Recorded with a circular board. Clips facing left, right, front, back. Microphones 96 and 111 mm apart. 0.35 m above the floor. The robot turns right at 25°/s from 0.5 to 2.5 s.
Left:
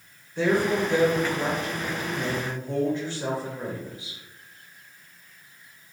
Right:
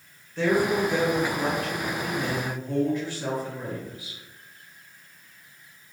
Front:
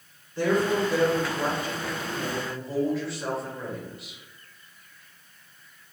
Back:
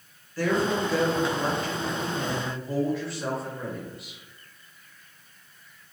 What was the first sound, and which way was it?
A woman speaking, 40° left.